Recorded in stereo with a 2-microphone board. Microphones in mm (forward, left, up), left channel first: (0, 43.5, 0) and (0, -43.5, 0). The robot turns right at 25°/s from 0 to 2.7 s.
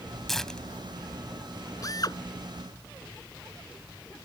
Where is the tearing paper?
5° left (ahead or behind); by 1.7 s 40° left (ahead or behind).